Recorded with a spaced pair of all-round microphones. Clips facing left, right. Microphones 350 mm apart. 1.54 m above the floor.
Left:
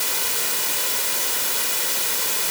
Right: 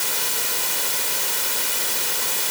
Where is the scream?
No scream in this recording.